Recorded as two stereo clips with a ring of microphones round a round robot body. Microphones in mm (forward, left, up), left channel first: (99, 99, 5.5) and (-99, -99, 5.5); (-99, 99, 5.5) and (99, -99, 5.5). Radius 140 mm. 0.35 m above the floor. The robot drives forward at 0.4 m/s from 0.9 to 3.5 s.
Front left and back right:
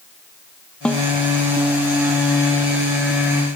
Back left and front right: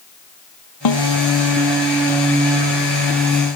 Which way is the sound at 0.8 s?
130° left.